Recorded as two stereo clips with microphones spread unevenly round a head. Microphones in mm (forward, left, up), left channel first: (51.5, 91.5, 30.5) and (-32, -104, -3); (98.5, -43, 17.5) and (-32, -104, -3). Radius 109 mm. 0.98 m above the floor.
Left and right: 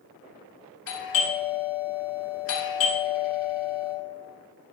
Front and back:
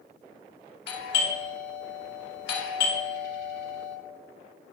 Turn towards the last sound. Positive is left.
turn(degrees=40)